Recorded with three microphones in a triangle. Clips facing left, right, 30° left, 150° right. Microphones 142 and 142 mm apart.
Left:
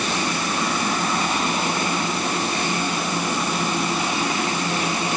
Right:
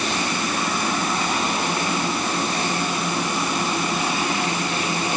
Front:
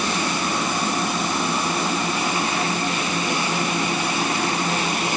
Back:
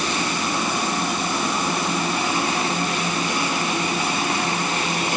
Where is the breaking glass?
No breaking glass in this recording.